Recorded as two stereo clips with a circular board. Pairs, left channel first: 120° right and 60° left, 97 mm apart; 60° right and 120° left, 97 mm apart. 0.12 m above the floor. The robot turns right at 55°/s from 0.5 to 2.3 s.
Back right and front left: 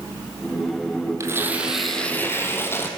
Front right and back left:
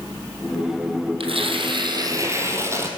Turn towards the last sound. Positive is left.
turn(degrees=180)